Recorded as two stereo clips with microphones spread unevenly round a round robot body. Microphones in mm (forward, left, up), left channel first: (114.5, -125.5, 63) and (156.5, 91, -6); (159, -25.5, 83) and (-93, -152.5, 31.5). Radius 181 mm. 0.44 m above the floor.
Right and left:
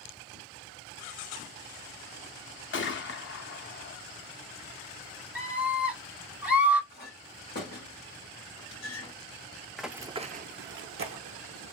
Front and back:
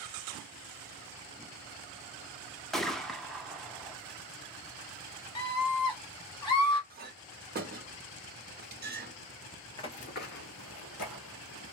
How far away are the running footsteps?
About 0.5 m.